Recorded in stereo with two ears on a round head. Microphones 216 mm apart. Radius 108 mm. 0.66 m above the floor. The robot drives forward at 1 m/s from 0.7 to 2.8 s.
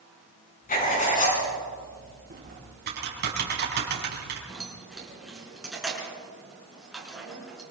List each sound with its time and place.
0.7 s writing: 40° left (ahead or behind), 6.5 m; by 1.4 s 35° left (ahead or behind), 7.5 m
2.3 s typing on a keyboard: 40° right (ahead or behind), 6 m; by 4.4 s 45° right (ahead or behind), 5.5 m
4.5 s keys jangling: centre (ahead or behind), 5.5 m